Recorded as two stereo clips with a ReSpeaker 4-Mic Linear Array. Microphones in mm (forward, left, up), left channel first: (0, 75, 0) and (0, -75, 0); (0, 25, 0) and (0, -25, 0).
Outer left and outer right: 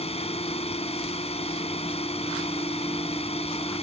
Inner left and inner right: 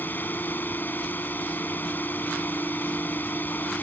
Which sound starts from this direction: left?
A drone, at 0.0 s.